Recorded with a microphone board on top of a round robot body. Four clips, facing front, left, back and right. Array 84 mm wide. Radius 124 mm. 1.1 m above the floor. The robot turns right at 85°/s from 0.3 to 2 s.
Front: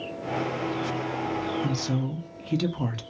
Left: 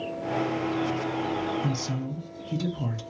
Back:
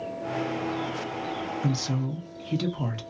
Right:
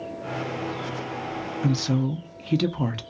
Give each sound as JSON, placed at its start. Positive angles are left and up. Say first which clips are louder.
{"t": 1.6, "sound": "a woman speaking", "louder": "right 6 dB, front 1 dB", "azimuth_deg": -110, "distance_m": 0.7}